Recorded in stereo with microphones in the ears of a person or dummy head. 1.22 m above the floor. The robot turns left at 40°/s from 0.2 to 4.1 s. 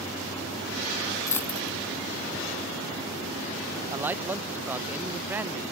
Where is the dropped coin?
15° left (ahead or behind); by 1.8 s 5° right (ahead or behind).